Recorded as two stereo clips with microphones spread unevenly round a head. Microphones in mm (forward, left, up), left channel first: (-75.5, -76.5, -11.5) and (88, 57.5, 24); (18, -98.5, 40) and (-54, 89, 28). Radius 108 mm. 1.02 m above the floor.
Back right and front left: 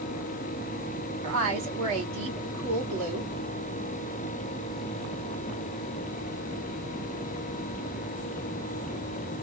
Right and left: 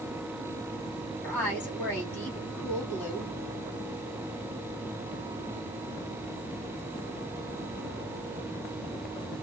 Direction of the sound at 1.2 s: 15° left.